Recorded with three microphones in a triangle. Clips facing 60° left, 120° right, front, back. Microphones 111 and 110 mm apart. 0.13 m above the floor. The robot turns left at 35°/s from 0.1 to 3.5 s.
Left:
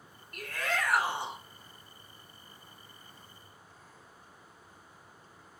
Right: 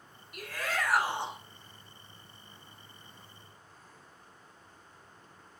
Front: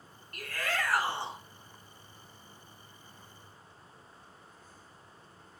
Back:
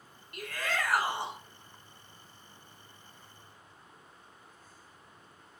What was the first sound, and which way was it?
A shout, 175° left.